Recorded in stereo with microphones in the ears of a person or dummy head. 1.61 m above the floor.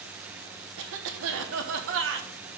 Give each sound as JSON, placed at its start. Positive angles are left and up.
{"t": 0.8, "sound": "a cough", "side_deg": -70, "distance_m": 1.3}